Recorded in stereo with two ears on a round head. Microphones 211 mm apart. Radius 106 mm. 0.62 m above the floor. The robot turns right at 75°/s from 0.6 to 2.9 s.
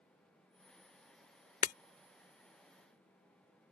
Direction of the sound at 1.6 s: 30° left (ahead or behind).